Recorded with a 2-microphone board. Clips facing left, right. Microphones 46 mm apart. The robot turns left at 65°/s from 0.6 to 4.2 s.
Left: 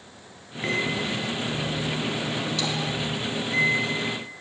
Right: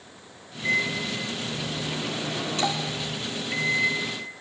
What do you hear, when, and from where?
0.6 s a microwave: 85° left, 2 m; by 3.9 s 130° right, 2 m